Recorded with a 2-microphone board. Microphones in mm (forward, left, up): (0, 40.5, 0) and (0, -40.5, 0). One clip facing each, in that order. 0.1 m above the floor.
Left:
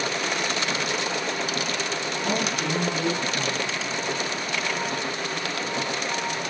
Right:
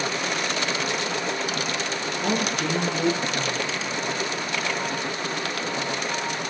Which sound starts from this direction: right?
A woman speaking, at 2.2 s.